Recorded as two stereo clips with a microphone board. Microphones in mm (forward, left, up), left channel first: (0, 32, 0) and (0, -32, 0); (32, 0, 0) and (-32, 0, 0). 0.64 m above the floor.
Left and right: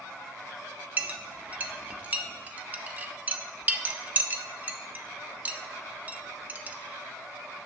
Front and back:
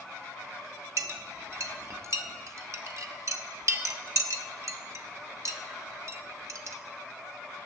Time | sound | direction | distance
1.0 | a clink | 150° right | 0.8 m